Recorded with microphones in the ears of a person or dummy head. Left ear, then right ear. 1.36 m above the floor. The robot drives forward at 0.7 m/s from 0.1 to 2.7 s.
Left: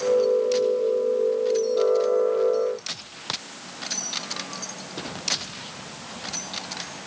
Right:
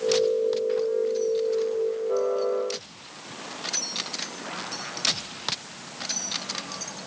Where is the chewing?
I don't hear chewing.